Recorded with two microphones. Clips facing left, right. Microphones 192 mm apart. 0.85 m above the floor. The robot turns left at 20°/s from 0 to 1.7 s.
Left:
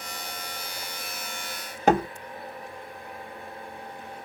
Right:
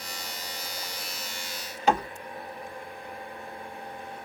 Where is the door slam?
50° left (ahead or behind), 1.2 m.